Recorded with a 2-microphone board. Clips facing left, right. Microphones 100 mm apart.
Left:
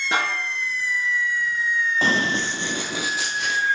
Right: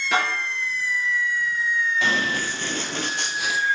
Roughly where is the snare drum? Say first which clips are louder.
Right 1 dB; left.